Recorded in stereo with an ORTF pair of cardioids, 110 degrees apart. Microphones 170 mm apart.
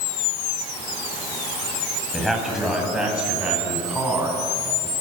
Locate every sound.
2.1 s a man speaking: straight ahead, 9 m; by 4.9 s 10° right, 13 m